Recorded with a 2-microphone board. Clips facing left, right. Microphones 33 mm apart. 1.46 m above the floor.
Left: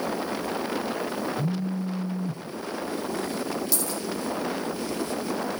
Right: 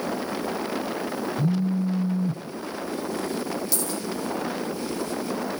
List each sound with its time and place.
1.4 s a phone buzzing: 35° right (ahead or behind), 0.6 m
3.7 s a dropped coin: 5° left (ahead or behind), 4.5 m